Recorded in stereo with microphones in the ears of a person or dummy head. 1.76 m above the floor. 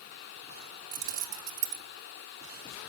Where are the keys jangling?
40° right (ahead or behind), 1.0 m.